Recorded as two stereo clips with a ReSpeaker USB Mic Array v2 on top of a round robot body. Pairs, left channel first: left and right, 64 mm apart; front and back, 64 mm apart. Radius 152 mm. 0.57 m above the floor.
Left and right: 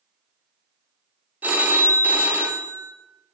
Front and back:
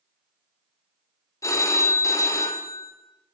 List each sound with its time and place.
1.4 s a phone ringing: 30° right, 0.6 m